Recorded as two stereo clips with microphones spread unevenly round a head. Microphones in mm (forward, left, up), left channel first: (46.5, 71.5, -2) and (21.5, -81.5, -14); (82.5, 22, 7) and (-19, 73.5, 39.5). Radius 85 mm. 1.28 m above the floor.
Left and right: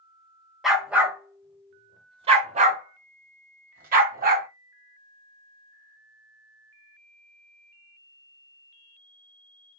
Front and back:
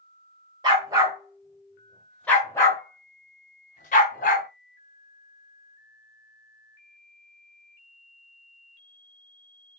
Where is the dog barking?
170° left, 1.4 m; by 4.5 s 75° right, 1.8 m.